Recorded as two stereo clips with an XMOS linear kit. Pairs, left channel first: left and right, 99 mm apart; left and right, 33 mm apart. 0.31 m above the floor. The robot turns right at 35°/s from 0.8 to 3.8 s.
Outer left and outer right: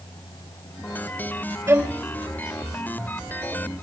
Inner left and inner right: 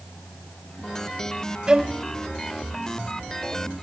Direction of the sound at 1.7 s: 30° right (ahead or behind).